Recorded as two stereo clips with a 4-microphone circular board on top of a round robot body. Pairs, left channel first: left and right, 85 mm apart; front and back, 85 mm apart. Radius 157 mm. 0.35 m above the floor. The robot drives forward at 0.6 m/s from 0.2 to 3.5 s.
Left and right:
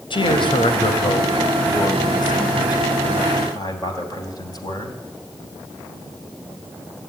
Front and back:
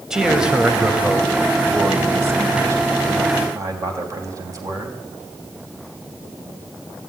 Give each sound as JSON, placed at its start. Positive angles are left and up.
{"t": 0.1, "sound": "a man speaking", "azimuth_deg": 95, "distance_m": 3.0}